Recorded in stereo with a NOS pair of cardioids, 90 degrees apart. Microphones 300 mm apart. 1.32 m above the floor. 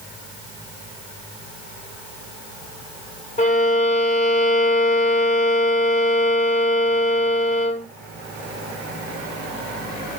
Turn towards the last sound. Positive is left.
turn(degrees=25)